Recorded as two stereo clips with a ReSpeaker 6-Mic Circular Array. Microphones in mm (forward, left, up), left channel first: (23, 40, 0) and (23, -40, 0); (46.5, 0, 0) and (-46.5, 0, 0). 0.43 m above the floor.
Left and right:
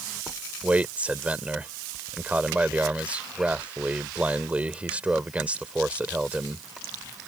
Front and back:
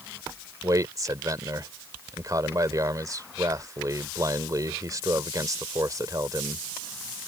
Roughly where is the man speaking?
Behind right.